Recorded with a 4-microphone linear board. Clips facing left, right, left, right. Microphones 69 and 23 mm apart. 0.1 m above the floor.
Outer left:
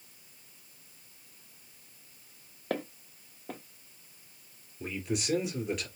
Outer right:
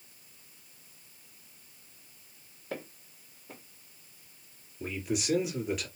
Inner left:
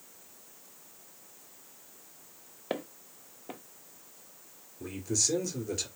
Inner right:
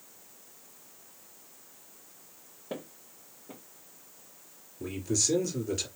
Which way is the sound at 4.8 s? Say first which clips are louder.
Outer right 1 dB, inner right 1 dB; centre (ahead or behind).